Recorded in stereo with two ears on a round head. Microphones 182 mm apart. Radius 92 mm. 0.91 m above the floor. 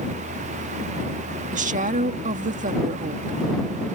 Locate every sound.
1.5 s a woman speaking: 40° right (ahead or behind)